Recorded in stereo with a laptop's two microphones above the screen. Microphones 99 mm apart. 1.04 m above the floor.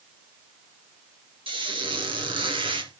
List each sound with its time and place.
1.5 s a squeak: 60° right (ahead or behind), 4 m